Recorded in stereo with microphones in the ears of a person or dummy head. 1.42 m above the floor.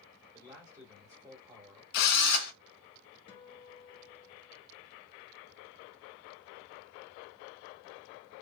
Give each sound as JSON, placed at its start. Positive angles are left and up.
{"t": 0.3, "sound": "a man speaking", "side_deg": -15, "distance_m": 1.7}
{"t": 1.9, "sound": "a drill", "side_deg": 60, "distance_m": 0.8}
{"t": 3.3, "sound": "a guitar", "side_deg": 25, "distance_m": 1.0}